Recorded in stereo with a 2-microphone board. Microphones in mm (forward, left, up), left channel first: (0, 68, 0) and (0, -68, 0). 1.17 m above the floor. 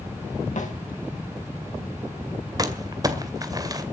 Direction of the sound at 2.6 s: 30° right (ahead or behind).